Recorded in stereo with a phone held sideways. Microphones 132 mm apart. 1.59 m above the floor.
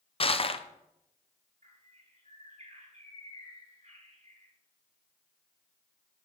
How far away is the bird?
About 5 m.